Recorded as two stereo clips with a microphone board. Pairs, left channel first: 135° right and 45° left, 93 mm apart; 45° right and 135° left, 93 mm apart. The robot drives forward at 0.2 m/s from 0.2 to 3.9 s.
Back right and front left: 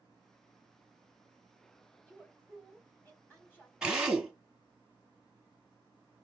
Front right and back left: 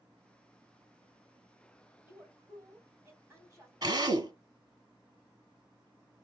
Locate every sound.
2.0 s a woman speaking: 165° left, 1.6 m; by 3.7 s 170° left, 1.8 m
3.8 s a drill: 125° left, 0.7 m